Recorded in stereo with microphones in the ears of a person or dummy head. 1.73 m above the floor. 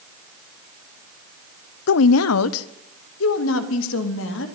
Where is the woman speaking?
65° left (ahead or behind), 0.7 m; by 4.5 s 70° left (ahead or behind), 4 m.